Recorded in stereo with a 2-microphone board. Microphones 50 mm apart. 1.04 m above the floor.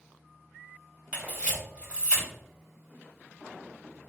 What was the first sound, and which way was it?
A camera shutter, 20° right (ahead or behind).